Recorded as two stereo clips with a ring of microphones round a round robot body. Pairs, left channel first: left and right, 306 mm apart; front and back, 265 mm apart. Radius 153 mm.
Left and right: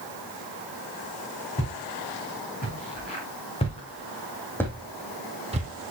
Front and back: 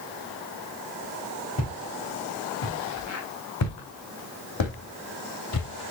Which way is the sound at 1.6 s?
25° left.